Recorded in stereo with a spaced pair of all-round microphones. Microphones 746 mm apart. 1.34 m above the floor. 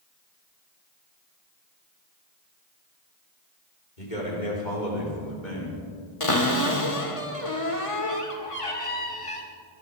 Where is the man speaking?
75° left (ahead or behind), 4.5 m; by 5.8 s 80° left, 6 m.